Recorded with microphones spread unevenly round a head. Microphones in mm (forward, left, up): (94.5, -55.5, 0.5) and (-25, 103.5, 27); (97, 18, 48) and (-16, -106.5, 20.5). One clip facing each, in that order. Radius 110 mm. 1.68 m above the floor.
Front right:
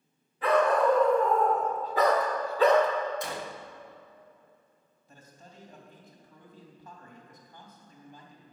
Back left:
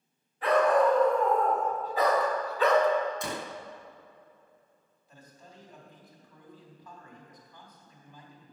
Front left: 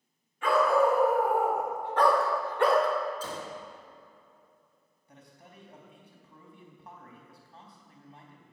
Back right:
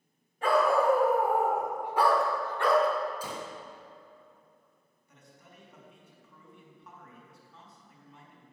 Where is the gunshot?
150° left, 0.7 m.